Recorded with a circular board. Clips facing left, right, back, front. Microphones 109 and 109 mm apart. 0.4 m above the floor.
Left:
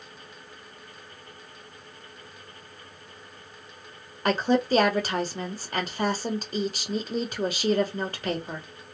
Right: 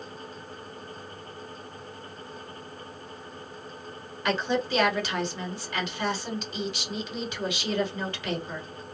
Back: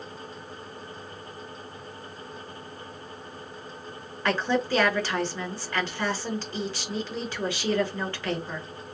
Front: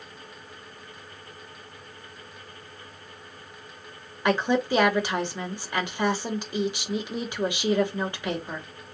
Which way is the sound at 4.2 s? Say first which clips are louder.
Left 4 dB, front 2 dB; 65° left.